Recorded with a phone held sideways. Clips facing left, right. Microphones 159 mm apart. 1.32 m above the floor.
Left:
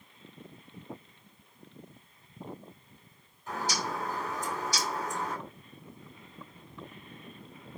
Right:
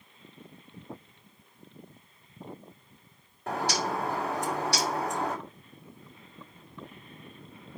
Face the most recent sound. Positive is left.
turn(degrees=-70)  # may be behind; listen again after turning